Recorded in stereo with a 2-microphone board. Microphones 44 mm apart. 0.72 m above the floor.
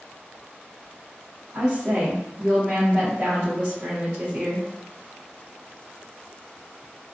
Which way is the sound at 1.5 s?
20° right (ahead or behind).